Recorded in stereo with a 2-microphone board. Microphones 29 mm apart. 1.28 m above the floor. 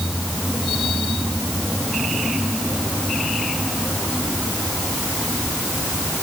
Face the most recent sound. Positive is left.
No sound to turn to.